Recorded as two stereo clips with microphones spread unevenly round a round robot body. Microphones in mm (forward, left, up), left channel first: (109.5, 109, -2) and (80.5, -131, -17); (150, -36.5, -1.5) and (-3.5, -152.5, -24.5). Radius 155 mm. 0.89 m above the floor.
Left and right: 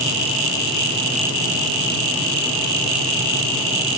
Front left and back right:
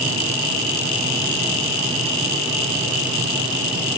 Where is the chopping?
I don't hear chopping.